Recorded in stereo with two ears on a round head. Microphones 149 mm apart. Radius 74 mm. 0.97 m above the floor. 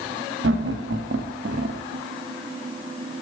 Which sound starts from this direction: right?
Laughter, at 0.4 s.